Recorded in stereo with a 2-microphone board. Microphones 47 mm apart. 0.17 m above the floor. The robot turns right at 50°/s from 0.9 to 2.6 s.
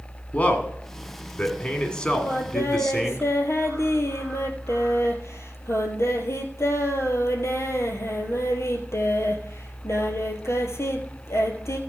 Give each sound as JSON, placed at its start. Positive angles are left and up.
{"t": 0.3, "sound": "a man speaking", "side_deg": 25, "distance_m": 1.8}
{"t": 2.2, "sound": "singing", "side_deg": 65, "distance_m": 1.7}